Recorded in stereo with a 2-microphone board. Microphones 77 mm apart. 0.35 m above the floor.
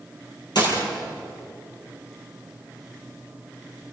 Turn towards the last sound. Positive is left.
turn(degrees=65)  # may be behind; listen again after turning